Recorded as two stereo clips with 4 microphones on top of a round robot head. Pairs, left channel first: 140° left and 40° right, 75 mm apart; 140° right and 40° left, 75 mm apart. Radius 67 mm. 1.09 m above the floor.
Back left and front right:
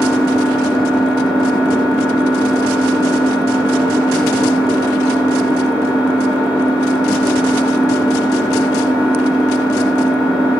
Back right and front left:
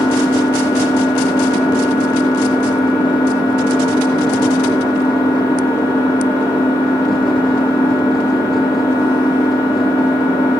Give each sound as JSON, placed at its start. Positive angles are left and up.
{"t": 0.0, "sound": "an engine running", "azimuth_deg": -115, "distance_m": 5.0}